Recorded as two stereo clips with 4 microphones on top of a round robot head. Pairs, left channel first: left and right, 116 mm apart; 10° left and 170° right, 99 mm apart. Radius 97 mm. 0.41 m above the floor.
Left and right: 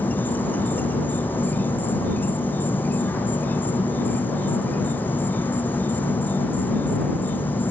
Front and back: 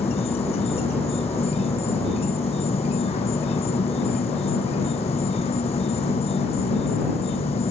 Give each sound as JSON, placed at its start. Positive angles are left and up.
{"t": 0.0, "sound": "an insect", "azimuth_deg": 15}